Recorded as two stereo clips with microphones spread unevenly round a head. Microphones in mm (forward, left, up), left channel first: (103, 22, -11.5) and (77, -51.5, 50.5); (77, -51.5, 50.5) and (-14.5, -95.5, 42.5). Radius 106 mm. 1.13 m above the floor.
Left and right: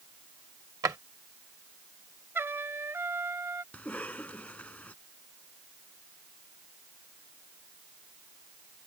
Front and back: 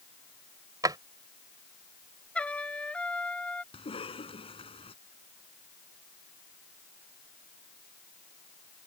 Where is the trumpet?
50° right.